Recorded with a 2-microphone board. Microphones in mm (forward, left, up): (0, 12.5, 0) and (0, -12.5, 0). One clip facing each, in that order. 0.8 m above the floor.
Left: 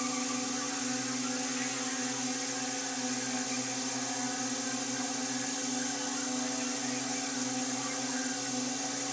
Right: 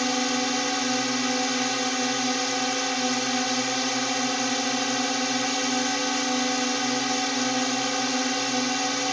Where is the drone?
55° right (ahead or behind).